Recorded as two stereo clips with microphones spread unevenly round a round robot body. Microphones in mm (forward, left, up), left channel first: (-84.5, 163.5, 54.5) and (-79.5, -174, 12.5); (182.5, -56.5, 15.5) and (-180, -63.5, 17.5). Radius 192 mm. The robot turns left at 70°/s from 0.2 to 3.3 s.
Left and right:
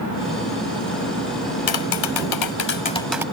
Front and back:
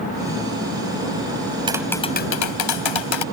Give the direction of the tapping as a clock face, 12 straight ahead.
9 o'clock.